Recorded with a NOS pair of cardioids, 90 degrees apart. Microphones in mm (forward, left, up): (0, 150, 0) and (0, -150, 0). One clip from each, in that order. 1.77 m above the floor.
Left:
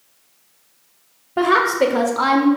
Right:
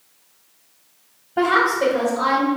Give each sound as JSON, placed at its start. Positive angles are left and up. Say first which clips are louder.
{"t": 1.4, "sound": "a woman speaking", "louder": "left 2 dB", "azimuth_deg": 15, "distance_m": 0.5}